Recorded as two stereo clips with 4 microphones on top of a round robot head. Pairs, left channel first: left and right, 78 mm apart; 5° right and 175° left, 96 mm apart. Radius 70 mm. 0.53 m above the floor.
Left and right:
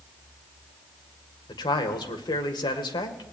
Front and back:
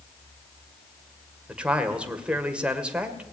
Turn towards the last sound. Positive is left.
turn(degrees=100)